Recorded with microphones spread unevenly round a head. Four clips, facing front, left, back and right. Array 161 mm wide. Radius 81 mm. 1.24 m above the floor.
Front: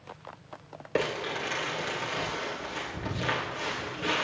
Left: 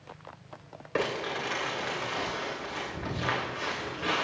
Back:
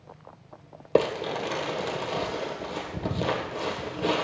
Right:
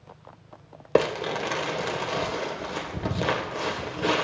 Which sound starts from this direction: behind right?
Crumpling, at 0.9 s.